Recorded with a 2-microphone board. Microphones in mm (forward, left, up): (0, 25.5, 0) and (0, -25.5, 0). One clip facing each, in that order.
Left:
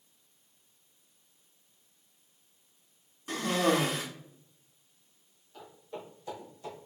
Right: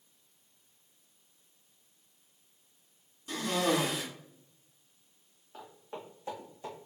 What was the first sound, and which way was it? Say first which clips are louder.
A cough: left 2 dB; 40° left (ahead or behind).